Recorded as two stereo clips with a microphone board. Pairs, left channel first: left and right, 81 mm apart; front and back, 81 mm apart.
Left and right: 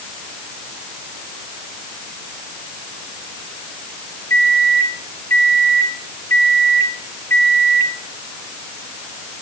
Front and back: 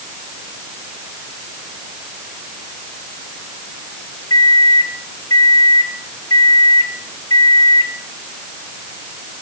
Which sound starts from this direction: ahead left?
A microwave, at 4.3 s.